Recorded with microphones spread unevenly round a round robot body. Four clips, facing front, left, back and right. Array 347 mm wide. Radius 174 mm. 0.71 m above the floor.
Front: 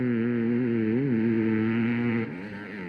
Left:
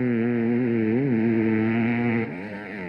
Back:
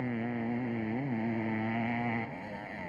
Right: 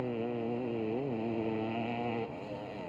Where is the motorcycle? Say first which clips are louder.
Left 12 dB, front 9 dB; 55° left.